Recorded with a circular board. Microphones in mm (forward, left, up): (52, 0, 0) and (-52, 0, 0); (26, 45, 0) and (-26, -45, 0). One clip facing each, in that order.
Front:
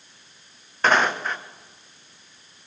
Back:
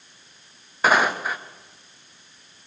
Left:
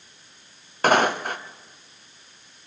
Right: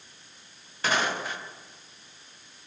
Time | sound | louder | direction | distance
0.8 | footsteps | back 1 dB, left 8 dB | 95° left | 1.9 m